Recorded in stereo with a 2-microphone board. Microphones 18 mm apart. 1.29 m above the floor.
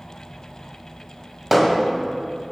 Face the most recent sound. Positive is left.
turn(degrees=-10)  # may be behind; listen again after turning